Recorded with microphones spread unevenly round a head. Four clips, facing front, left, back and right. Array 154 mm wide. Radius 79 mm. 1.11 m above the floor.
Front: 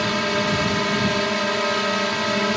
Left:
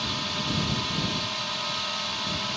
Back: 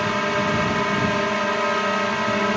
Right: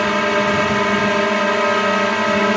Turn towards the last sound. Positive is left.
turn(degrees=-75)